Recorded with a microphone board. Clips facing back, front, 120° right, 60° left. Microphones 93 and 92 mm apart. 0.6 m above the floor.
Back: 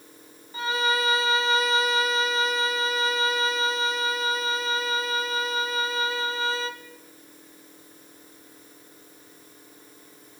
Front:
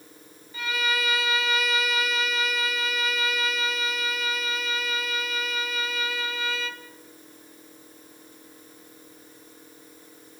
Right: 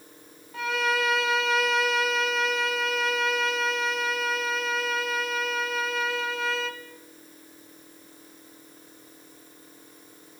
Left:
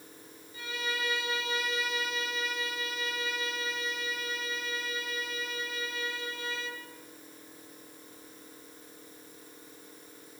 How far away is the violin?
About 1.0 m.